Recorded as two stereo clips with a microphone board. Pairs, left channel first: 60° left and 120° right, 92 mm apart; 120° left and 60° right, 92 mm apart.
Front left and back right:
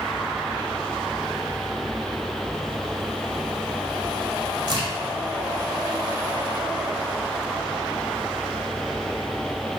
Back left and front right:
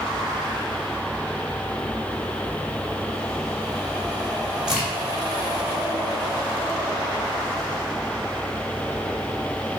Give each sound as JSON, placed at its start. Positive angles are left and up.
{"t": 4.7, "sound": "a crack", "azimuth_deg": -140, "distance_m": 1.2}